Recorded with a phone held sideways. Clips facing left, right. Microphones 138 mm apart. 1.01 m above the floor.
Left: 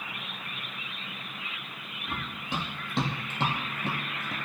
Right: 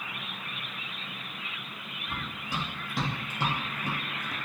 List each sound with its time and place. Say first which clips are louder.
2.1 s running footsteps: left 2 dB; 20° left (ahead or behind), 2.5 m; by 4.4 s 25° left (ahead or behind), 1.2 m